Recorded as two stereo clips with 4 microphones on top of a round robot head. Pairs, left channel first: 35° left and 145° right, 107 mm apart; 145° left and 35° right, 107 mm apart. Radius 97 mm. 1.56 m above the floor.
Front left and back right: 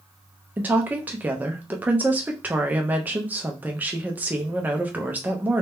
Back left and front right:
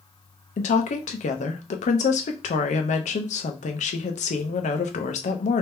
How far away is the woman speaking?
About 0.7 m.